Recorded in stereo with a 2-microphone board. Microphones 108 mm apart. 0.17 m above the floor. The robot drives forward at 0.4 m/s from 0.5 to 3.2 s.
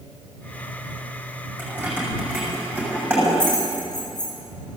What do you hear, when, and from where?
1.6 s keys jangling: 15° right (ahead or behind), 6.5 m